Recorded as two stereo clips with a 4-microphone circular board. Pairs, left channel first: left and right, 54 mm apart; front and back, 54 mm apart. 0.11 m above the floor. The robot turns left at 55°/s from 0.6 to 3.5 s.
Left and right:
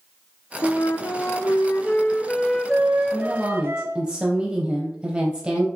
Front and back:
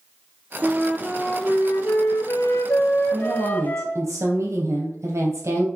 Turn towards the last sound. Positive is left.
turn(degrees=-165)